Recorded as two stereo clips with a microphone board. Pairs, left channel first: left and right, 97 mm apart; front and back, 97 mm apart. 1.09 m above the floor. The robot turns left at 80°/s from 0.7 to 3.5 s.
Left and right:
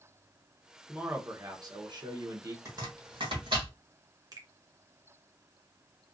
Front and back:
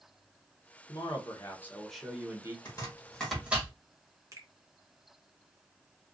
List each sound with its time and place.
0.9 s a man speaking: 5° right, 0.7 m; by 2.5 s 135° right, 0.7 m
2.6 s chopping: 40° right, 1.3 m; by 3.7 s 105° right, 1.3 m
4.3 s a finger snap: 130° right, 0.7 m